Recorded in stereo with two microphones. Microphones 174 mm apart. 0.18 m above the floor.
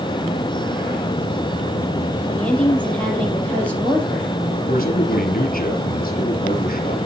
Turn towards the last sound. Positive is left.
turn(degrees=55)  # may be behind; listen again after turning